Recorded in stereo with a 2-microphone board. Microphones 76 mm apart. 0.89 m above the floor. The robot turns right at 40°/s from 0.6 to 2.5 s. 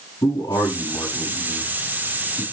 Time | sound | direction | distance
0.2 | a man speaking | 75° left (ahead or behind) | 7.5 m